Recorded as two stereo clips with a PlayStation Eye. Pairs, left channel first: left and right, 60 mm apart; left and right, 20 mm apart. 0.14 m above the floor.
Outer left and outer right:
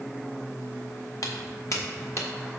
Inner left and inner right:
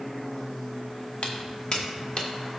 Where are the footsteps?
65° left (ahead or behind), 1.8 m; by 2.3 s 50° left (ahead or behind), 1.9 m.